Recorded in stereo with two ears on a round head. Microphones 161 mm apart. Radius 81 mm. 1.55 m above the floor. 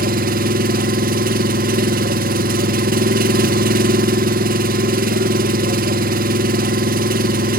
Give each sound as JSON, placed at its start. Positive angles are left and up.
{"t": 0.0, "sound": "an engine running", "side_deg": -50, "distance_m": 0.9}